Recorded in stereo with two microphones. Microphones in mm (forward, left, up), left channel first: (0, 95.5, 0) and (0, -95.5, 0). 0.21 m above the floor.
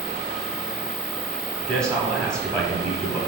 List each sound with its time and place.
1.6 s a man speaking: 5° left (ahead or behind), 1.0 m